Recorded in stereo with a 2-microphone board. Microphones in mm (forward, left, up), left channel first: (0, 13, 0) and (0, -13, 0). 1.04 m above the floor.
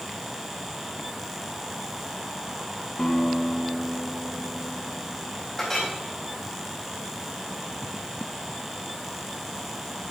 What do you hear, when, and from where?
3.0 s a guitar: 20° left (ahead or behind), 2.5 m
5.6 s a clink: 15° left (ahead or behind), 4 m